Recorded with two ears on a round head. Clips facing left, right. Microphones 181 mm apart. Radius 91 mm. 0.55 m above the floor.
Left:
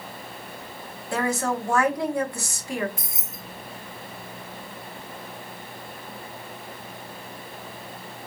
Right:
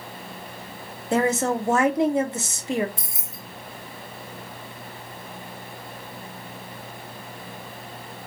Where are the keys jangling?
25° right (ahead or behind), 0.5 m.